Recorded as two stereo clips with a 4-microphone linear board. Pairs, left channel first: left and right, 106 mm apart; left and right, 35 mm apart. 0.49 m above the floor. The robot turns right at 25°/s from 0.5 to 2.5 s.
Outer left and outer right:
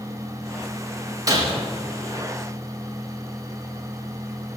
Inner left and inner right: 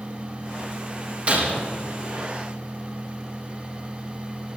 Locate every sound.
1.3 s breaking glass: 35° right (ahead or behind), 5 m; by 1.5 s 40° right (ahead or behind), 5 m